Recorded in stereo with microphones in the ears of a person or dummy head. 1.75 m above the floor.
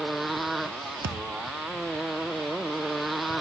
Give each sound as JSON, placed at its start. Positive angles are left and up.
{"t": 0.0, "sound": "a motorcycle", "side_deg": 0}
{"t": 1.0, "sound": "a thud", "side_deg": -50}